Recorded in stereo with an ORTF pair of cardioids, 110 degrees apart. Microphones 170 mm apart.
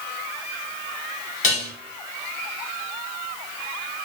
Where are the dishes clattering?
50° left, 1.7 m.